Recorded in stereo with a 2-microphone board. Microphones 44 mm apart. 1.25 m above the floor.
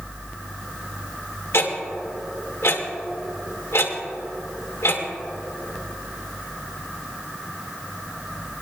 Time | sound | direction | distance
1.5 | ticking | 85° left | 1.8 m